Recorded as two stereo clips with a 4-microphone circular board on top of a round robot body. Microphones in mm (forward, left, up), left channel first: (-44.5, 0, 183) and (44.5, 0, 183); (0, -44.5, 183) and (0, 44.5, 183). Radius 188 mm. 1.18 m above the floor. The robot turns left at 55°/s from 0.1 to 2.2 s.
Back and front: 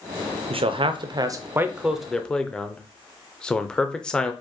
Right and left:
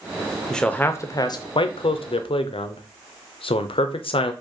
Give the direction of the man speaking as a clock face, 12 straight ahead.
12 o'clock.